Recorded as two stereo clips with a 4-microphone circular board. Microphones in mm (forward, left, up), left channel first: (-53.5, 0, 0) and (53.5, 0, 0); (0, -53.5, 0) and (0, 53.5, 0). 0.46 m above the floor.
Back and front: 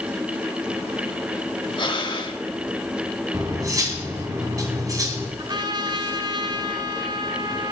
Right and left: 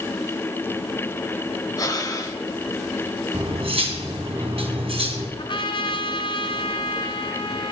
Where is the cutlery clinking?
60° left, 2 m.